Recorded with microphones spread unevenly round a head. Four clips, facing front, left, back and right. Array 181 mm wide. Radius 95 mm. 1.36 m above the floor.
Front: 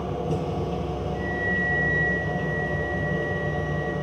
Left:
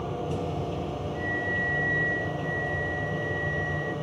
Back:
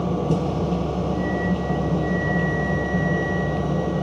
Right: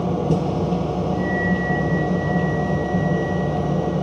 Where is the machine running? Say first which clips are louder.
Right 10 dB, back 5 dB; 115° right, 0.7 m.